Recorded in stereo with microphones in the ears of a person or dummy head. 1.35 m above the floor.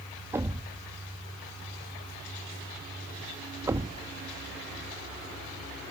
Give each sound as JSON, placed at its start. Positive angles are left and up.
{"t": 0.3, "sound": "a thud", "side_deg": -15}